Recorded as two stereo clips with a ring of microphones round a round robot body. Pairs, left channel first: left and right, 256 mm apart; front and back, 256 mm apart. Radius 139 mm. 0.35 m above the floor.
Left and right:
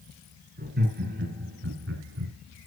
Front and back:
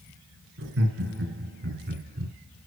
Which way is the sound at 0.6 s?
140° right.